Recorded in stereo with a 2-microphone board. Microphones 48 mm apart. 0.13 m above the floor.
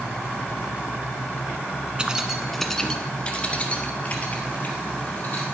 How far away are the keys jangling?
About 1.0 m.